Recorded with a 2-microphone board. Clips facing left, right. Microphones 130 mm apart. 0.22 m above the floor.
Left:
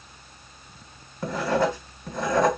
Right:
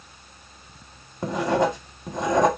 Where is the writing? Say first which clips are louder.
Right 2 dB; 20° right (ahead or behind), 0.8 m.